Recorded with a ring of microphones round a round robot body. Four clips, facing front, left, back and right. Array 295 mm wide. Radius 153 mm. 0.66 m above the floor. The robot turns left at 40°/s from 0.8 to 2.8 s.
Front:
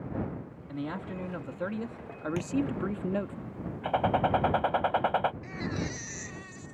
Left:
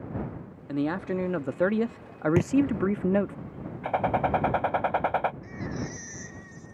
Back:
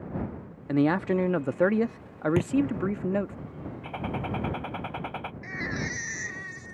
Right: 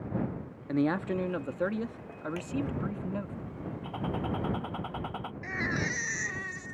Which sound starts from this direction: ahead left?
A gunshot, at 3.8 s.